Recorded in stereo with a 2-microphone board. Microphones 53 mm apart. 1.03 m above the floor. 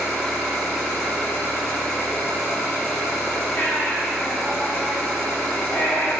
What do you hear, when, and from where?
0.0 s an engine running: centre (ahead or behind), 1.1 m
3.6 s a baby crying: 35° left (ahead or behind), 0.5 m